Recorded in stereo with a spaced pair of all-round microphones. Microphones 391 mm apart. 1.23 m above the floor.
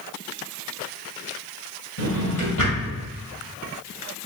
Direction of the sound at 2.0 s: 50° left (ahead or behind).